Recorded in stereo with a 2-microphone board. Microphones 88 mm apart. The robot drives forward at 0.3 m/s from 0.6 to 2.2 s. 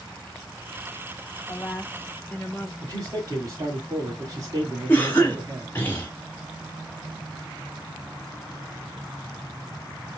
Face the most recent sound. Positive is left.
turn(degrees=20)  # may be behind; listen again after turning